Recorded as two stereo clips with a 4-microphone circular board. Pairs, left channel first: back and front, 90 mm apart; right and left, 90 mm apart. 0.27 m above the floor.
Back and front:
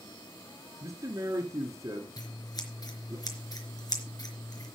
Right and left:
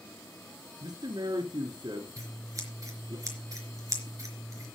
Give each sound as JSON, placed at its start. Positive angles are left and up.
{"t": 0.8, "sound": "a man speaking", "azimuth_deg": 50, "distance_m": 3.5}
{"t": 2.2, "sound": "scissors", "azimuth_deg": 140, "distance_m": 3.5}